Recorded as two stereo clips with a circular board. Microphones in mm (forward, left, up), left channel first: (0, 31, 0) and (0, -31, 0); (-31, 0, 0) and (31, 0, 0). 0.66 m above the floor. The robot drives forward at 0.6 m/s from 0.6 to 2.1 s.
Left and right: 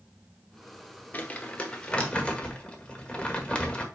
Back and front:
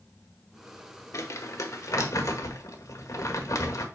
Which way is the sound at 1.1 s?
150° left.